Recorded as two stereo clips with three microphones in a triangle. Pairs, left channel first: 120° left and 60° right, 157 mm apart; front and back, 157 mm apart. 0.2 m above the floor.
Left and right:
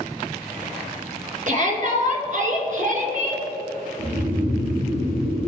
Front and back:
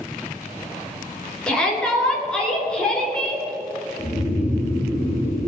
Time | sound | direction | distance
1.5 | a shout | 85° right | 3 m
4.0 | snoring | 70° right | 3.5 m